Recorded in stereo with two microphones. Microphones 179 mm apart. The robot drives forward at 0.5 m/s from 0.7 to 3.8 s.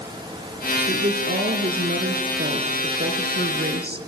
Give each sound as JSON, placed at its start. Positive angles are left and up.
{"t": 0.9, "sound": "a woman speaking", "side_deg": -50, "distance_m": 4.0}